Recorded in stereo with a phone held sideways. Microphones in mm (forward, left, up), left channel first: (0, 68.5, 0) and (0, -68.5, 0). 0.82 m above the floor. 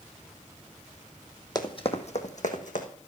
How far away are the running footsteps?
About 1.3 m.